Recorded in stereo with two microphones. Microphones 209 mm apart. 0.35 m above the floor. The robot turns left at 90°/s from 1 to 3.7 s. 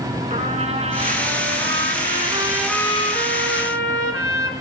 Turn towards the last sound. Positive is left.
turn(degrees=85)